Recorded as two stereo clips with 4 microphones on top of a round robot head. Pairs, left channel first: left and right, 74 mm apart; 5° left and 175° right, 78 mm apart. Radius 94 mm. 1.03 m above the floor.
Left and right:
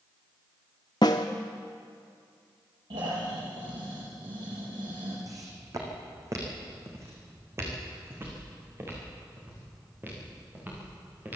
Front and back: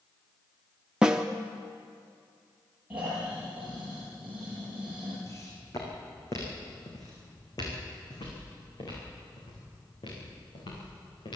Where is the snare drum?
115° left, 0.6 m.